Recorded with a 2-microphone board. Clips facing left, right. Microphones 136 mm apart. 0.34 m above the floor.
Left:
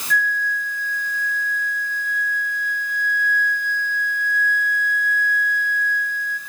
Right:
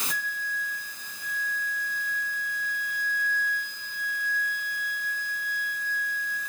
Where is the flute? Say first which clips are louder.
Left 11 dB; 80° left, 3 m.